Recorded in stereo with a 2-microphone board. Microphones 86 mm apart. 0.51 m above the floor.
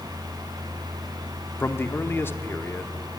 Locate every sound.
1.6 s a man speaking: 30° left (ahead or behind), 0.7 m